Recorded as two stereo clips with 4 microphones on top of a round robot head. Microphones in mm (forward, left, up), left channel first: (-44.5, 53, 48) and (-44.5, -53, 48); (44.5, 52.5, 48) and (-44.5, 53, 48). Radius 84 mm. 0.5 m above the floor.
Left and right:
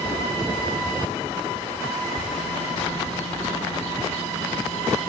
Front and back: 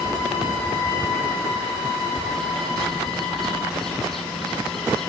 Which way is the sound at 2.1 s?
85° left.